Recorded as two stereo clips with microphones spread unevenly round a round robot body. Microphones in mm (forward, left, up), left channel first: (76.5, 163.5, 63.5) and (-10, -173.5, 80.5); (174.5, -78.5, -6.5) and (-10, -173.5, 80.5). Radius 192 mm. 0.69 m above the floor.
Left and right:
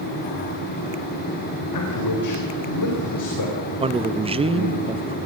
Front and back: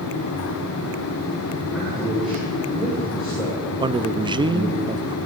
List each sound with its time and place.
1.7 s a man speaking: 115° left, 4 m
3.8 s a man speaking: 50° right, 0.8 m